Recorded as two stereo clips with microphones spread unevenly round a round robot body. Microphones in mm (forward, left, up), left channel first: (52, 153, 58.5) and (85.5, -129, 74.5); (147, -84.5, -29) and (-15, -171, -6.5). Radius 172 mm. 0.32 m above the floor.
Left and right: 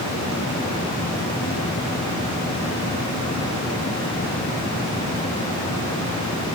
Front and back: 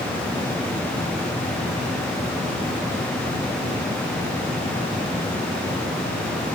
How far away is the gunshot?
No gunshot in this recording.